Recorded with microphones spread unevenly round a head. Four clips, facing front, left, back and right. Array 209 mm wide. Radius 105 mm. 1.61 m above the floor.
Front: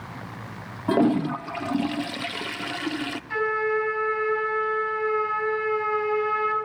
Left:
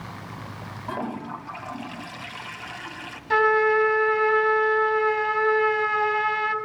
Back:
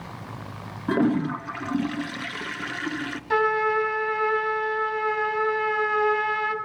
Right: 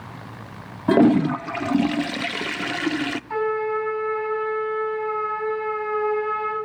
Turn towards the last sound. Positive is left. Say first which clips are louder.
# left 5 dB, back 3 dB
turn(degrees=120)